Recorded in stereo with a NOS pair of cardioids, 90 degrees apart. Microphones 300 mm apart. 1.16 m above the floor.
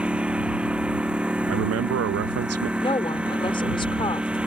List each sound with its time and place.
0.0 s a lawn mower: 5° right
1.5 s a man speaking: 55° right
2.8 s a woman speaking: 15° left